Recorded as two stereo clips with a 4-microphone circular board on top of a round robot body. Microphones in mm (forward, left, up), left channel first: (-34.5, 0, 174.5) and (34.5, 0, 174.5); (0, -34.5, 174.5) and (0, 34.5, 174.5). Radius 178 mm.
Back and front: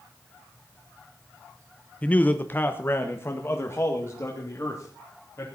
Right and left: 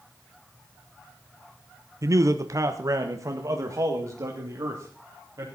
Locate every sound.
2.0 s a man speaking: 115° left, 1.1 m; by 5.5 s 135° left, 4 m